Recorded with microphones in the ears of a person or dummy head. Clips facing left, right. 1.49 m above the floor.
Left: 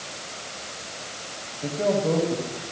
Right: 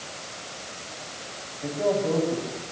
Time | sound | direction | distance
1.6 | a man speaking | 30° left (ahead or behind) | 7 m